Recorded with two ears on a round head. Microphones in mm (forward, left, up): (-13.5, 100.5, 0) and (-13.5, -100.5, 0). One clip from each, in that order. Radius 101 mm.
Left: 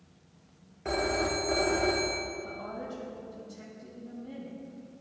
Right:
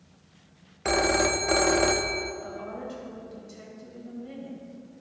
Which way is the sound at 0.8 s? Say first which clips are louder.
Right 6 dB; 75° right (ahead or behind).